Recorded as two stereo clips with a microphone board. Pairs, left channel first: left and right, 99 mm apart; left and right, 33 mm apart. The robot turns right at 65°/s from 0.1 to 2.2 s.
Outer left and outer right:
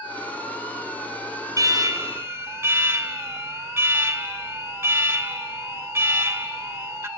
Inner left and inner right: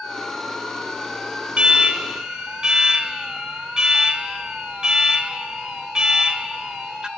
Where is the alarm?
90° right, 1.5 m; by 7.1 s 45° right, 1.5 m.